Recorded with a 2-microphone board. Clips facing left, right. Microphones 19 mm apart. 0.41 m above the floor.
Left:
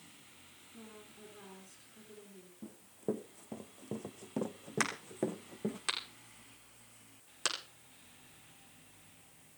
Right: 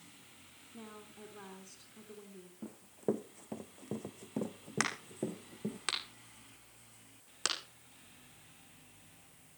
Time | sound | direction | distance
0.7 | a woman speaking | 45° right (ahead or behind) | 4 m
2.6 | running footsteps | 30° right (ahead or behind) | 2.0 m
4.8 | a crack | 5° right (ahead or behind) | 7.5 m